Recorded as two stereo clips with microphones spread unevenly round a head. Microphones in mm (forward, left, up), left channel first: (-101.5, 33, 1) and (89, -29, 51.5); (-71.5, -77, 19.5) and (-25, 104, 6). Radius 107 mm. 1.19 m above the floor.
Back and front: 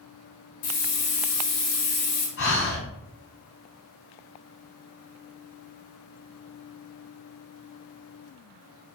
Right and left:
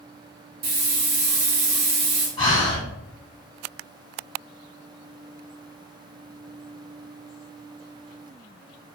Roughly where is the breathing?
Behind.